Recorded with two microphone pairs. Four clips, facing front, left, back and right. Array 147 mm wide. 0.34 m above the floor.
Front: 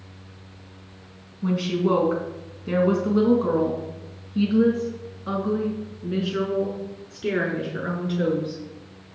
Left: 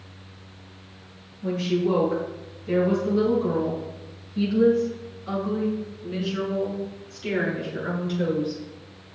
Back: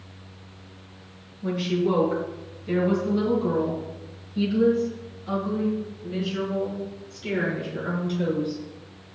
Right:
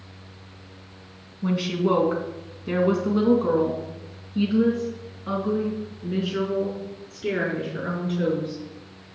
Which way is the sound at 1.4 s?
60° right.